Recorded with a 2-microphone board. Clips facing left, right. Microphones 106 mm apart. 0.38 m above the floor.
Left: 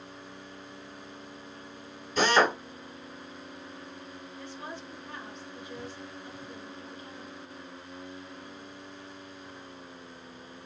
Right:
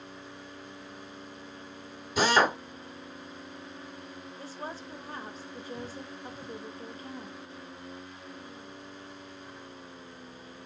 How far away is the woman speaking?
About 1.0 m.